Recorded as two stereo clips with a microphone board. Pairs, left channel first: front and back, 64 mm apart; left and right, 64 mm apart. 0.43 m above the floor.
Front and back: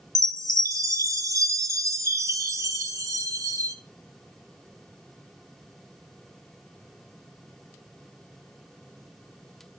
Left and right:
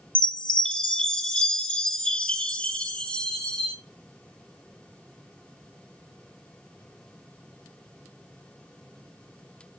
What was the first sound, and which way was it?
A chime, 160° left.